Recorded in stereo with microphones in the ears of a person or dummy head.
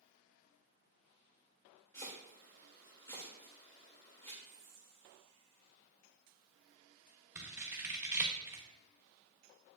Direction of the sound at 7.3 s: 10° right (ahead or behind).